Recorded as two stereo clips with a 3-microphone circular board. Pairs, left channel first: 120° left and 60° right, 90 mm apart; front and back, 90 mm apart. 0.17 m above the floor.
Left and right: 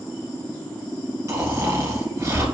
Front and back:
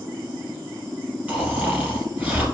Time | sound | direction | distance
1.3 | snoring | 105° right | 1.6 m